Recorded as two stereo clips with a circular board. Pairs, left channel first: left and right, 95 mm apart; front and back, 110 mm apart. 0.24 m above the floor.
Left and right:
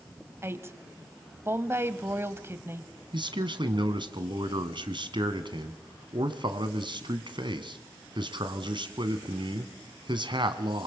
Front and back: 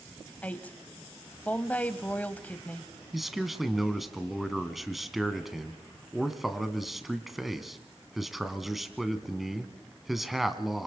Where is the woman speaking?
60° right, 1.1 m.